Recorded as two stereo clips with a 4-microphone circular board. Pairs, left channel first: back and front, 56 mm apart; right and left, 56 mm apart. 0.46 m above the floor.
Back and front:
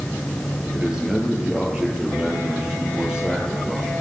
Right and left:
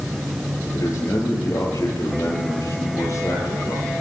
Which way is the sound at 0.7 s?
75° right.